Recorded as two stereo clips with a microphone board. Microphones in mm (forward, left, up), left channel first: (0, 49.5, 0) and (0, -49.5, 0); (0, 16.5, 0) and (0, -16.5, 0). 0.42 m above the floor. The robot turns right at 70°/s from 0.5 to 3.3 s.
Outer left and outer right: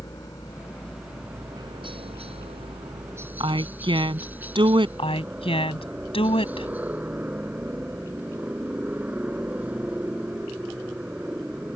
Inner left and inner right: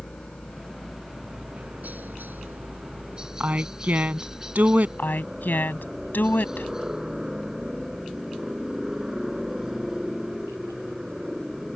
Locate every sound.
0.0 s a helicopter: 35° left (ahead or behind); by 11.8 s 10° right (ahead or behind)
3.4 s a woman speaking: 55° right (ahead or behind)
5.0 s a woman speaking: 70° left (ahead or behind)